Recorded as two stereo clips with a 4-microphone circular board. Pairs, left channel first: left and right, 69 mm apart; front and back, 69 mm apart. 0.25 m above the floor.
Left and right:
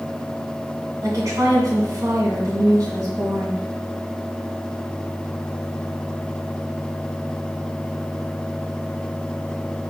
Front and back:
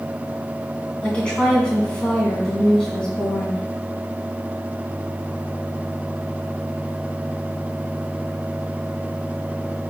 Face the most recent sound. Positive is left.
turn(degrees=-70)